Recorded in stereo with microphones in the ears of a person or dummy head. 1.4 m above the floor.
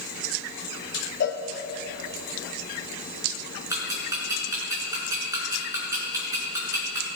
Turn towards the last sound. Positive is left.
turn(degrees=-15)  # may be behind; listen again after turning